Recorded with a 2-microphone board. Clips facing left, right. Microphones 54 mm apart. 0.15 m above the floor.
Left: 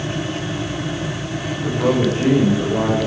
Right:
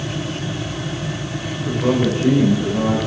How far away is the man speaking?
About 8.5 m.